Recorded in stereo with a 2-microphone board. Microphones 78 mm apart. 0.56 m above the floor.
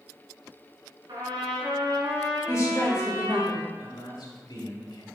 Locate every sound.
1.1 s a trumpet: 75° right (ahead or behind), 3 m
2.5 s a woman speaking: 40° left (ahead or behind), 2 m
3.8 s a man speaking: 65° left (ahead or behind), 2.0 m